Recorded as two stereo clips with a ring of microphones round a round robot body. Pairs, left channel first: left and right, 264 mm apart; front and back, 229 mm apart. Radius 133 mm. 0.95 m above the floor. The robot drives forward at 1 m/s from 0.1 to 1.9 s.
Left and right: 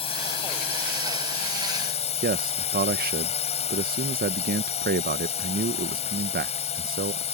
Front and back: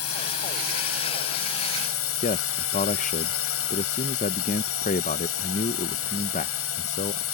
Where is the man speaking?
50° right.